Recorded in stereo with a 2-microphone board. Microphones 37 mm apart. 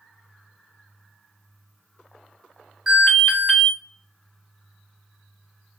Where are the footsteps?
No footsteps in this recording.